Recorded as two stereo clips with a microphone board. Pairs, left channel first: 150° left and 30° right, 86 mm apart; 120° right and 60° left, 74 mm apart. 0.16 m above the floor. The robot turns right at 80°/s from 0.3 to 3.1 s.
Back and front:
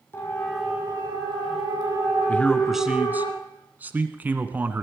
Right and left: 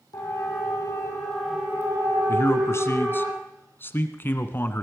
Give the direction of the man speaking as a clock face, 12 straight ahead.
5 o'clock.